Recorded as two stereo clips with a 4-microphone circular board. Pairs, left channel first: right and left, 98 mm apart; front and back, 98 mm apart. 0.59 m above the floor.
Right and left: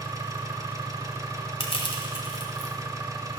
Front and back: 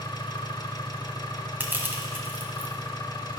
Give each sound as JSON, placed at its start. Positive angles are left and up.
{"t": 0.0, "sound": "an engine running", "azimuth_deg": 40, "distance_m": 1.0}
{"t": 1.6, "sound": "crushing", "azimuth_deg": -110, "distance_m": 1.6}